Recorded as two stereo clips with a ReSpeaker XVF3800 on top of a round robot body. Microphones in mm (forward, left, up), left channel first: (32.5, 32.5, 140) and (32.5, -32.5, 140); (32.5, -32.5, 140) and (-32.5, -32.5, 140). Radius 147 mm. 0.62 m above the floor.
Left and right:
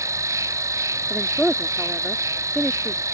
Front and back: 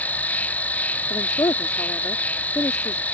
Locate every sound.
0.0 s an insect: 65° right
1.1 s a woman speaking: 10° left